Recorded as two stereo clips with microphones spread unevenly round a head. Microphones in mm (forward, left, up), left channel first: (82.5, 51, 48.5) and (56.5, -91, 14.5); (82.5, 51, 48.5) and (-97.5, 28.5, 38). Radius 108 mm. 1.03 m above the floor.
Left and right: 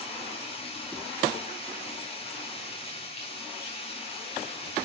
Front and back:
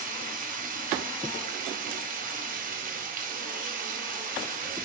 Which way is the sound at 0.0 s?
145° left.